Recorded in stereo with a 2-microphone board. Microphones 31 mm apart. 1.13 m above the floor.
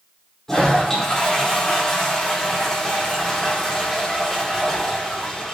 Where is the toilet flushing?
10° left (ahead or behind), 4.5 m.